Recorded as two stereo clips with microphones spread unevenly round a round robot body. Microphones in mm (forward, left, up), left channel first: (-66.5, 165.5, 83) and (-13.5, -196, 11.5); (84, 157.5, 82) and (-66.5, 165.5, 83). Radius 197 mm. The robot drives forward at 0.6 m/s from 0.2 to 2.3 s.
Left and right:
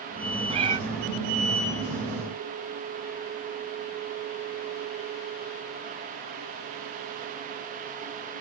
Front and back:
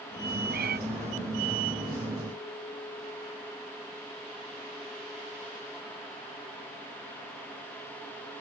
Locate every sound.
0.5 s a cat meowing: 155° right; by 0.8 s 160° right